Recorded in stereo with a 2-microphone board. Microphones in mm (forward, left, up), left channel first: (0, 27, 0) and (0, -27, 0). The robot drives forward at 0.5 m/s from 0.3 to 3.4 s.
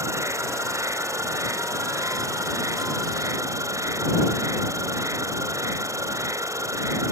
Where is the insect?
70° right (ahead or behind); by 7.1 s 85° right.